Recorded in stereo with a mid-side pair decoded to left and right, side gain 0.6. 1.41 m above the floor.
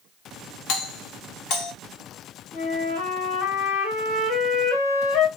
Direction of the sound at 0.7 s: 70° left.